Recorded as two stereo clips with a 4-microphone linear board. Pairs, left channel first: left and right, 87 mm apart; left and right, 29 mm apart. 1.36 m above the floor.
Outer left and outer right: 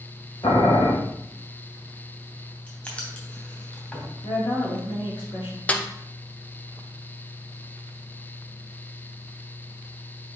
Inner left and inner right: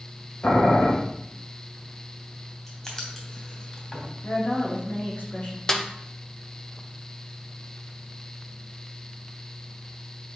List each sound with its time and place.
0.4 s boiling: 60° left (ahead or behind), 1.6 m
2.7 s writing: 20° left (ahead or behind), 2.5 m
4.2 s a woman speaking: 90° left, 3 m
5.7 s a snare drum: 15° left (ahead or behind), 0.6 m